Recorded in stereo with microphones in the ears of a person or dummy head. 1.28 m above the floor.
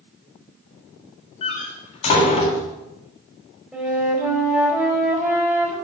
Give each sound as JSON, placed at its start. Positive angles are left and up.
{"t": 1.4, "sound": "a door slam", "side_deg": 40, "distance_m": 1.5}
{"t": 3.7, "sound": "a flute", "side_deg": -5, "distance_m": 3.0}